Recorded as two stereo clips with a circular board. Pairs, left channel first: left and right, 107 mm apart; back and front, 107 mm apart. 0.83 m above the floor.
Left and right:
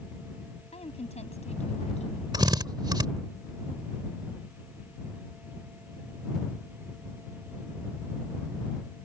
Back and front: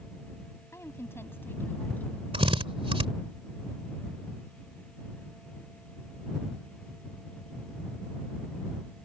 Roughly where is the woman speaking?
Behind left.